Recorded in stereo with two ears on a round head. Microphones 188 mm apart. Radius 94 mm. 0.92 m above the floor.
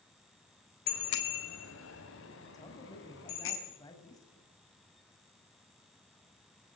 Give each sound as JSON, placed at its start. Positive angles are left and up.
{"t": 0.9, "sound": "a bicycle bell", "side_deg": 70, "distance_m": 3.0}
{"t": 2.5, "sound": "a man speaking", "side_deg": 15, "distance_m": 6.0}